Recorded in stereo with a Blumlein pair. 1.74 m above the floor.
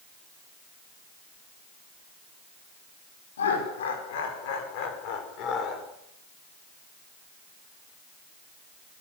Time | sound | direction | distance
3.4 | laughter | 65° left | 6 m